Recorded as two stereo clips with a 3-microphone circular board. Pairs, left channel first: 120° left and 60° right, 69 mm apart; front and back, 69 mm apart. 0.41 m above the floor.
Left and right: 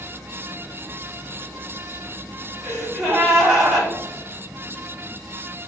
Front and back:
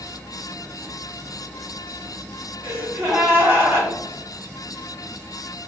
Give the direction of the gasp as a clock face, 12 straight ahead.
5 o'clock.